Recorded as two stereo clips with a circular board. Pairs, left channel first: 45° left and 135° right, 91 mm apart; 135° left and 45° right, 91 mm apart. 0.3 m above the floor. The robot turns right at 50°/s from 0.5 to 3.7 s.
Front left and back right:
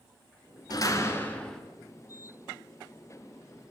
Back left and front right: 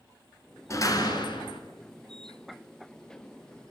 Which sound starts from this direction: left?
A door slam, at 0.7 s.